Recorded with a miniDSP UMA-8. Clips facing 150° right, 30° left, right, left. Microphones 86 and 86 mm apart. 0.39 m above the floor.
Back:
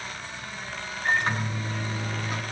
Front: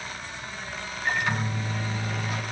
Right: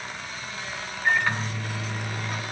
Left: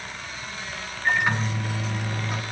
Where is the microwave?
165° left, 3.5 m.